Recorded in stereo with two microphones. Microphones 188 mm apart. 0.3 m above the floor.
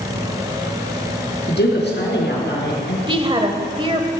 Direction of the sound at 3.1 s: 30° right (ahead or behind).